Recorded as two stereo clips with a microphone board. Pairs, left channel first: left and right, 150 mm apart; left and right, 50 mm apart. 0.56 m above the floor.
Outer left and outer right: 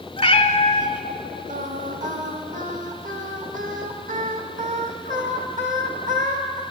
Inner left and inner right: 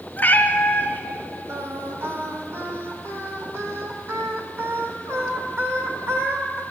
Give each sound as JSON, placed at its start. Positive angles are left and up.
{"t": 0.2, "sound": "a cat meowing", "side_deg": 40, "distance_m": 0.7}
{"t": 1.5, "sound": "singing", "side_deg": -60, "distance_m": 1.1}